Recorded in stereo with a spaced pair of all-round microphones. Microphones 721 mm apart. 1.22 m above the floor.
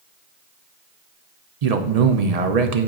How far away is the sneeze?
No sneeze in this recording.